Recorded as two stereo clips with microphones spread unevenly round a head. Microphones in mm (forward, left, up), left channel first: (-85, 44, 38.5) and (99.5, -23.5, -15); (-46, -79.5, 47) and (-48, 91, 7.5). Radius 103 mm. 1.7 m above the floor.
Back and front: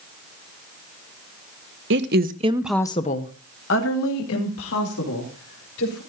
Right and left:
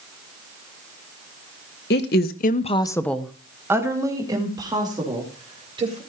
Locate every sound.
1.9 s a woman speaking: 60° right, 1.3 m; by 6.0 s 155° left, 4.5 m